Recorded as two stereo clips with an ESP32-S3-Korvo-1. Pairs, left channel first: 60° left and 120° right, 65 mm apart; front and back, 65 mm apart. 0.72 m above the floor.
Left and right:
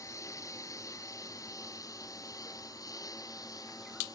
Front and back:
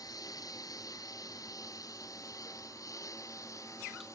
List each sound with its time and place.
0.0 s a lawn mower: 25° left; by 4.2 s 40° left